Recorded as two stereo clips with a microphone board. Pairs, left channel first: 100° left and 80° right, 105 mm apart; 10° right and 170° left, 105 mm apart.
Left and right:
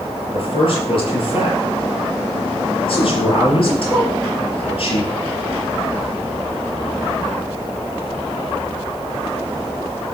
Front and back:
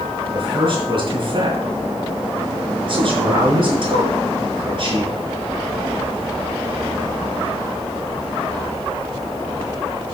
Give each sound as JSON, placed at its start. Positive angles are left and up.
{"t": 0.3, "sound": "a man speaking", "azimuth_deg": 130, "distance_m": 4.5}